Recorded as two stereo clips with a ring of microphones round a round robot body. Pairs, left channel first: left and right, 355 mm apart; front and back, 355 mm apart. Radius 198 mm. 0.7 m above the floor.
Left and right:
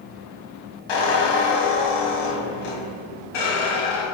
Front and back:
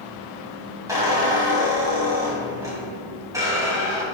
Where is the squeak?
100° left, 2.5 m.